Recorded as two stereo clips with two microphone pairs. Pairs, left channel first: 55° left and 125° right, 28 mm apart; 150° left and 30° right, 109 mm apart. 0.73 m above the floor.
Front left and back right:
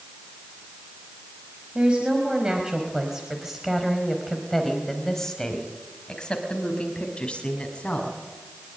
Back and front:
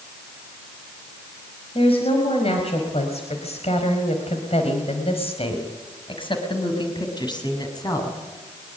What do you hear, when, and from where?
1.8 s a woman speaking: straight behind, 5 m; by 8.2 s 100° left, 7 m